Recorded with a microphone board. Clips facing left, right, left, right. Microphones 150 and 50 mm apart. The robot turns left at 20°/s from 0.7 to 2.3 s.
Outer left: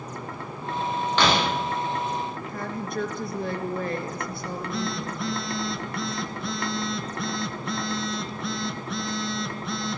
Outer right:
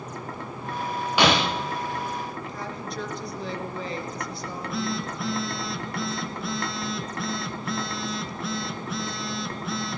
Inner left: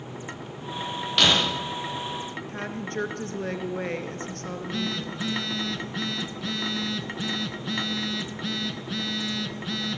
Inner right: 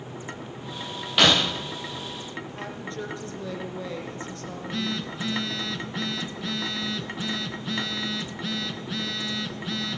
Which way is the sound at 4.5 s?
Centre (ahead or behind).